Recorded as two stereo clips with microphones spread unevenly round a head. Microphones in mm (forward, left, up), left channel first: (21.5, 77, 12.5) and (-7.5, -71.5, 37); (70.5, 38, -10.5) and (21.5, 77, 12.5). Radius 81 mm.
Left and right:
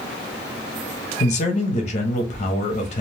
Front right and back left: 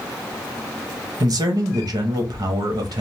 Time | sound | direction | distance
1.2 | a man speaking | 120° left | 0.8 m